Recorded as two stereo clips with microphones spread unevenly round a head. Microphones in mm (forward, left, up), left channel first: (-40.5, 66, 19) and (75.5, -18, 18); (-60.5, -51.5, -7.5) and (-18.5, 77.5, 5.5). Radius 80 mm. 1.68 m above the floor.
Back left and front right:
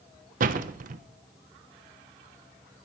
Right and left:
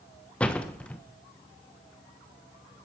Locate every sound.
0.4 s a door slam: 20° right, 1.0 m